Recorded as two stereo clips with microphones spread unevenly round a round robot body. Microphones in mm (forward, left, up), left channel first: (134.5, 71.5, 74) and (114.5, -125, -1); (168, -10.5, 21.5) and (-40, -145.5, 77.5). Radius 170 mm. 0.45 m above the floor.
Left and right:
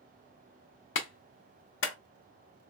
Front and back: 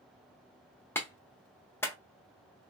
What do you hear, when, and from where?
0.9 s a clap: 95° left, 0.7 m